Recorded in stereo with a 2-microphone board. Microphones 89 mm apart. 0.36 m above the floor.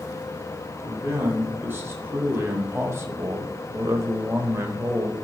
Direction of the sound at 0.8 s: 25° right (ahead or behind).